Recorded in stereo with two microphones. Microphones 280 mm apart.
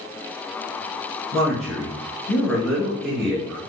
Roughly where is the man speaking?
Centre.